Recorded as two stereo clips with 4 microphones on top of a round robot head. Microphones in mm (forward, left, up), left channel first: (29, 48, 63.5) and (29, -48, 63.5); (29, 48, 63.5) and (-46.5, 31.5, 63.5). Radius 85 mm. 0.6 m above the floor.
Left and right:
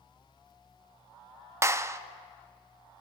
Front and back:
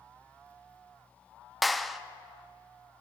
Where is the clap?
80° right, 0.6 m.